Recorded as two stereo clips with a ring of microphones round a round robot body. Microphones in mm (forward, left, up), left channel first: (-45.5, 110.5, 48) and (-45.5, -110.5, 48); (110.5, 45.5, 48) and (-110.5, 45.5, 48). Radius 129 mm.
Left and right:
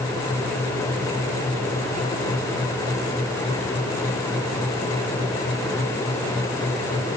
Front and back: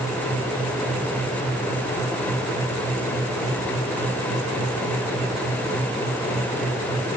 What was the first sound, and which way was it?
Only background noise.